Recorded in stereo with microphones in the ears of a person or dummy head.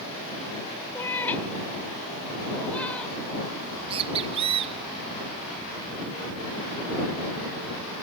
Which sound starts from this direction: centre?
A cat meowing, at 0.9 s.